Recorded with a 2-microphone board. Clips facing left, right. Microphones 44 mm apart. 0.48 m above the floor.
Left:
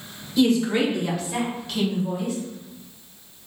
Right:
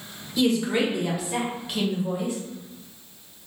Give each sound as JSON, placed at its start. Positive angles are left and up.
{"t": 0.4, "sound": "a woman speaking", "side_deg": 0, "distance_m": 1.1}